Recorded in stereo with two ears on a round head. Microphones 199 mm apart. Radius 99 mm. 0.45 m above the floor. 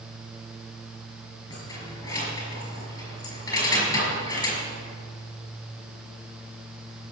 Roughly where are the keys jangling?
Centre.